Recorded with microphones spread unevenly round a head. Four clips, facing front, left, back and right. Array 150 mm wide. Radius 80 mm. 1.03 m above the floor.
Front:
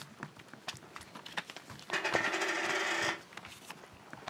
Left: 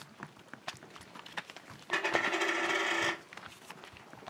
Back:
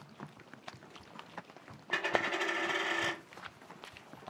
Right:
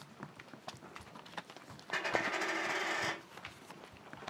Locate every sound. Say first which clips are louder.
1.9 s a dropped coin: left 3 dB, even; 140° left, 1.5 m